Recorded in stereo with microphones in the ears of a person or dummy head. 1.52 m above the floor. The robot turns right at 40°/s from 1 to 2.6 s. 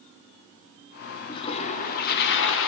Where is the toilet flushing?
30° left, 0.8 m; by 2.7 s 80° left, 0.8 m.